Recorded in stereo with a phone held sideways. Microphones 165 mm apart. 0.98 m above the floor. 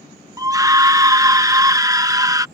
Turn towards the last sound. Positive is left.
turn(degrees=-20)  # may be behind; listen again after turning